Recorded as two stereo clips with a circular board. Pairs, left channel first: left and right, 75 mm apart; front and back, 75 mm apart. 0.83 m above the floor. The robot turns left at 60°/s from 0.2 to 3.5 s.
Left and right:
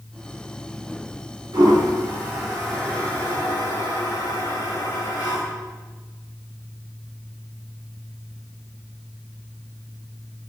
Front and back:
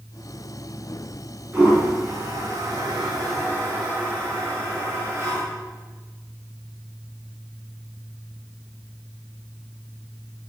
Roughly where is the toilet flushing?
Right.